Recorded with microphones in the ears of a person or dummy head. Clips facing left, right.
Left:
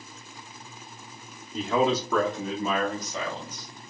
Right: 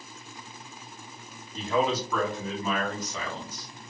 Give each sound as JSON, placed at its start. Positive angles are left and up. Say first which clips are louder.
{"t": 1.5, "sound": "a man speaking", "louder": "left 2 dB", "side_deg": 65, "distance_m": 0.8}